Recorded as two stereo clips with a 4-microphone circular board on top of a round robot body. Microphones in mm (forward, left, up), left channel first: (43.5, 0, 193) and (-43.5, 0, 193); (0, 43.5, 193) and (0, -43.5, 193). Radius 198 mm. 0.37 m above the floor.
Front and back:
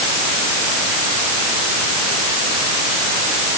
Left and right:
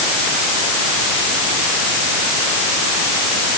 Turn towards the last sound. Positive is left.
No sound to turn to.